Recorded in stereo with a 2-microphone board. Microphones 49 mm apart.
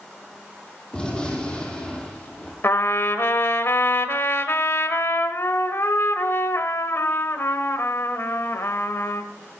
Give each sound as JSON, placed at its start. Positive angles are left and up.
{"t": 0.9, "sound": "a gunshot", "side_deg": 15, "distance_m": 4.5}
{"t": 2.6, "sound": "a trumpet", "side_deg": 60, "distance_m": 1.2}